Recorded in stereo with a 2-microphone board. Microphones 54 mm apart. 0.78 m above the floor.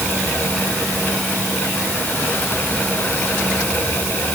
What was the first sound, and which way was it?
Only background noise.